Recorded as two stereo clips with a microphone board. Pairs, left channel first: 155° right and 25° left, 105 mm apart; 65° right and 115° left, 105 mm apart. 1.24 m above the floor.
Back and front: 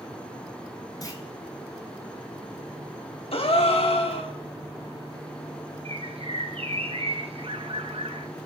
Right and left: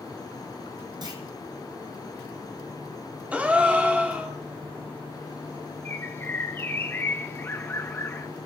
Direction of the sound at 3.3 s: 170° right.